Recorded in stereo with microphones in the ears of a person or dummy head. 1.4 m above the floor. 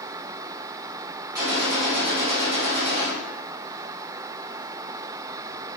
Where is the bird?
I don't hear a bird.